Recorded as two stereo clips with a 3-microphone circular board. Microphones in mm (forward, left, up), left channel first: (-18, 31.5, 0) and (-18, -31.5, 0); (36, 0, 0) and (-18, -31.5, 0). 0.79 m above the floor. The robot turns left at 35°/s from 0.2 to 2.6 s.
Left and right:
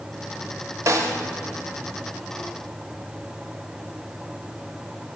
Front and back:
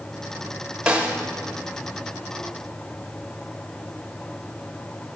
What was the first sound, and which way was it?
A snare drum, 75° right.